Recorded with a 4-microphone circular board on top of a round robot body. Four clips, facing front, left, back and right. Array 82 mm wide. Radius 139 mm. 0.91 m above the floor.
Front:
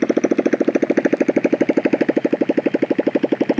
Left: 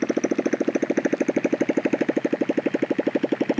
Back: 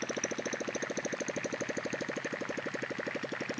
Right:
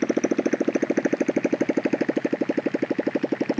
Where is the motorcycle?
Straight ahead; by 3.6 s 10° left.